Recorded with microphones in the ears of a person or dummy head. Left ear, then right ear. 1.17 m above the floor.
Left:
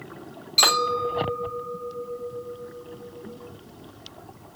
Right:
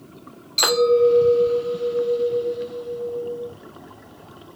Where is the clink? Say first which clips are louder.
Right 4 dB; centre (ahead or behind), 1.0 m.